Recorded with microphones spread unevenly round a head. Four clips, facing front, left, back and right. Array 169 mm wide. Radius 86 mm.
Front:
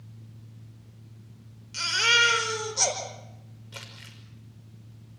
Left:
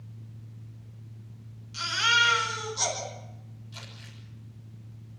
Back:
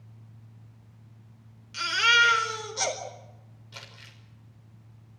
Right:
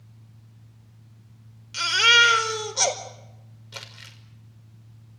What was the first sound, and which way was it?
A baby crying, 90° right.